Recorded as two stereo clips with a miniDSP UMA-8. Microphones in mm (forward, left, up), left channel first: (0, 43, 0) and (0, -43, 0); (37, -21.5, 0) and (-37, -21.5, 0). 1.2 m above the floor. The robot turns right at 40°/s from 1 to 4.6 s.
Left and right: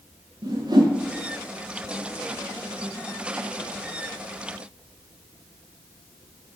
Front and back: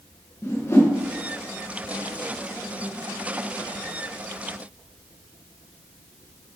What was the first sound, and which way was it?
A whoosh, 55° right.